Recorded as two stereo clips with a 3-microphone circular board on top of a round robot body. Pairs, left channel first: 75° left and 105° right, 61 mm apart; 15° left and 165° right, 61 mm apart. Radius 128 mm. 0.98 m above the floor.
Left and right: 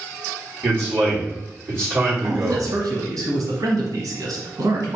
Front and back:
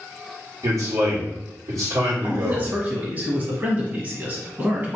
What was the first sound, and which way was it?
A man speaking, 150° right.